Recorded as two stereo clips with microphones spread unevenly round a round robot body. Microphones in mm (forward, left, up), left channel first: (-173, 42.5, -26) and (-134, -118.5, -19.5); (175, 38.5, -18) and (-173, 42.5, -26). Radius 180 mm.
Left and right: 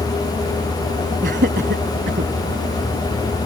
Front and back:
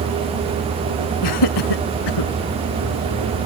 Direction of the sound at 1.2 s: 30° right.